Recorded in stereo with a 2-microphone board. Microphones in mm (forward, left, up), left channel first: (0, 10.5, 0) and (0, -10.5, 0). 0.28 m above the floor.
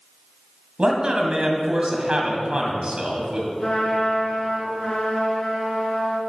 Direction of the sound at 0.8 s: 50° right (ahead or behind).